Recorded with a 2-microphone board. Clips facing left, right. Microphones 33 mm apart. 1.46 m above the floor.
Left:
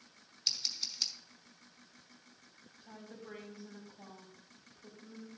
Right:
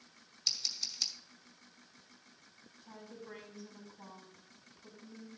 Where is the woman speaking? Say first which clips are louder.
Even; 35° left (ahead or behind), 5 m.